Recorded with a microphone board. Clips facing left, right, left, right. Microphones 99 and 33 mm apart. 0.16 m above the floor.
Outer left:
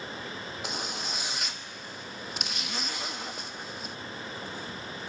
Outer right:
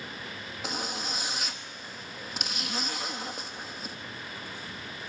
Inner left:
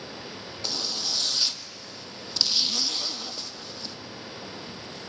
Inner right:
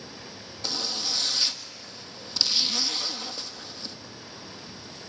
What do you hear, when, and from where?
0.6 s a zipper: centre (ahead or behind), 1.3 m